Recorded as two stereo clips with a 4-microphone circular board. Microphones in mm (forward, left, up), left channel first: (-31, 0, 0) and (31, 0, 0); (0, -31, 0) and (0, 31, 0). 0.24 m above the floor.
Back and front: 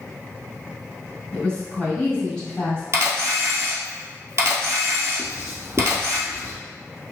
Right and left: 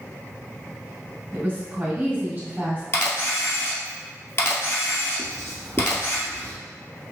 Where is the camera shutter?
40° right, 1.3 m.